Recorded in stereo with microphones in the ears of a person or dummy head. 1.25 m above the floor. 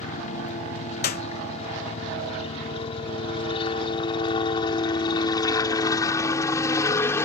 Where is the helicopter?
40° left (ahead or behind); by 7.2 s 15° left (ahead or behind).